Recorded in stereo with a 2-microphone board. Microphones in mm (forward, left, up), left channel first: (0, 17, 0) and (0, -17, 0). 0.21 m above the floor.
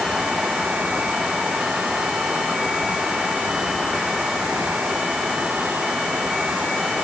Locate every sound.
Only background noise.